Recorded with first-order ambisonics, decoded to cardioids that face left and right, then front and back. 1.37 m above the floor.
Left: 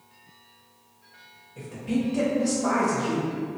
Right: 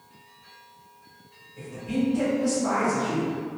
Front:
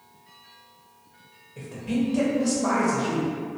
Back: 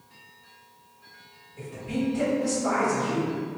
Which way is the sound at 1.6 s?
35° left.